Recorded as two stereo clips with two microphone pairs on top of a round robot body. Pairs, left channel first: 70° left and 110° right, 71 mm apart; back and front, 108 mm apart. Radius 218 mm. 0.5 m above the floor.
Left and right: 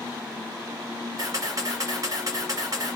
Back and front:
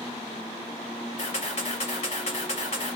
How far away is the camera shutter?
About 1.1 m.